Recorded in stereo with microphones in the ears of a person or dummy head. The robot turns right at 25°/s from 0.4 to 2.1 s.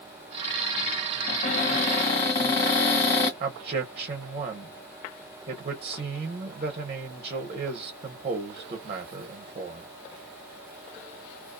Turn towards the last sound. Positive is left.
turn(degrees=-25)  # may be behind; listen again after turning